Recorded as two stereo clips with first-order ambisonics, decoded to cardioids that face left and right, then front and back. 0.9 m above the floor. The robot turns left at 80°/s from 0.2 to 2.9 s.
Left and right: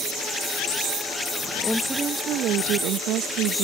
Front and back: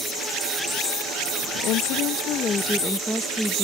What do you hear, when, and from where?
1.6 s a woman speaking: 15° left; by 3.6 s 90° right